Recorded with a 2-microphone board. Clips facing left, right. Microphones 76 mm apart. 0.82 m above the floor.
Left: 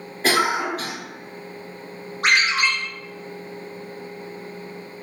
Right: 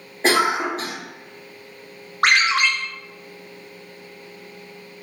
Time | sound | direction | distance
0.2 | a cough | 25° right (ahead or behind) | 1.5 m
2.2 | a ringtone | 65° right (ahead or behind) | 0.8 m